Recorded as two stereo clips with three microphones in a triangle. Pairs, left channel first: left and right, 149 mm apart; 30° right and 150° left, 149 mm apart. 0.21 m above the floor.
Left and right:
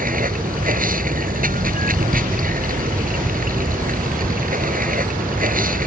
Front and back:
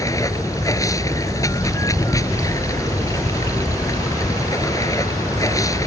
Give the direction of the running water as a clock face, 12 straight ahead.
3 o'clock.